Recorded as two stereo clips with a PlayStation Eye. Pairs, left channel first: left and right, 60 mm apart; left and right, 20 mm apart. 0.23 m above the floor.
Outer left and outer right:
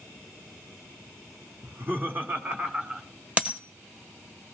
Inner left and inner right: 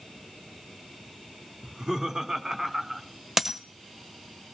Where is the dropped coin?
20° right (ahead or behind), 1.3 m.